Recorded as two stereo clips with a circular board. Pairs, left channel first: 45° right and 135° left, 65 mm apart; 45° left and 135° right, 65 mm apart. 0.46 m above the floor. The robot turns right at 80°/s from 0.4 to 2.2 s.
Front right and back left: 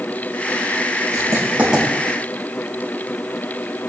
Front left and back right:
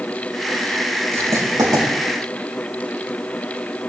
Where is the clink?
No clink in this recording.